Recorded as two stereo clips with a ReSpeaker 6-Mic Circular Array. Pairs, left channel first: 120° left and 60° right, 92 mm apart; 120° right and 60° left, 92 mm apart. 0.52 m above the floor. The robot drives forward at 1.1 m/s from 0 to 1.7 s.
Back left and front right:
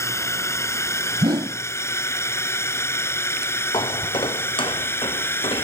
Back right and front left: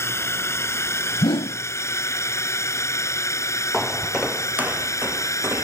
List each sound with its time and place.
0.0 s a drone: straight behind; by 5.6 s 175° right
1.2 s a whoosh: 90° right; by 1.6 s 110° right
3.7 s footsteps: 150° left; by 5.6 s 120° left